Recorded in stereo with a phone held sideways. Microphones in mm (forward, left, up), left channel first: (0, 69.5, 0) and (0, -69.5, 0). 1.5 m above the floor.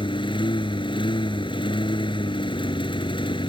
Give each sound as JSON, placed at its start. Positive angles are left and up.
{"t": 0.0, "sound": "a lawn mower", "side_deg": 35}